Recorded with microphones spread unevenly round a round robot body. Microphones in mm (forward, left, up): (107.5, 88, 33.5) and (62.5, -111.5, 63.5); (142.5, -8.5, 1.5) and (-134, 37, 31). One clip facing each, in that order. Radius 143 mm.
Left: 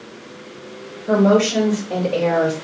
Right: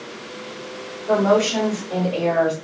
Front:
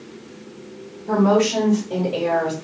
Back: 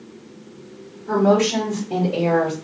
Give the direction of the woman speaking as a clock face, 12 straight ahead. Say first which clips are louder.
Left 3 dB, even; 8 o'clock.